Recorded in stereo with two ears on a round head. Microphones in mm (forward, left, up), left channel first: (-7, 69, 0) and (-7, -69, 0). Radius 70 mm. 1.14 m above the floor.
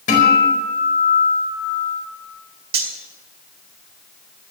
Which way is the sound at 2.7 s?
65° right (ahead or behind).